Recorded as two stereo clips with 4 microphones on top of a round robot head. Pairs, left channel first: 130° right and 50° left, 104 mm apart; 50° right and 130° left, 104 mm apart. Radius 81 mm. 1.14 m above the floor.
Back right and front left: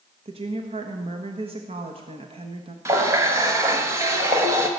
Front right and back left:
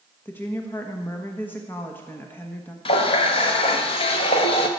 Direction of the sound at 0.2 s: 20° left.